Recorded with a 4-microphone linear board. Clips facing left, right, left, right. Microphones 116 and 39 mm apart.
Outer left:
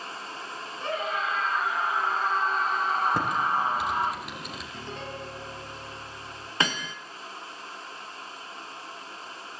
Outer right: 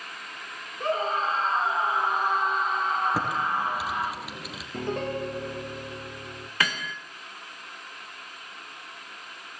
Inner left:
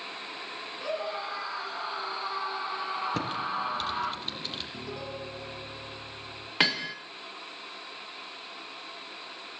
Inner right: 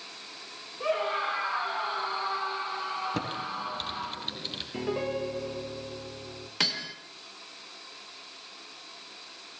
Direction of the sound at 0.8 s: 40° right (ahead or behind).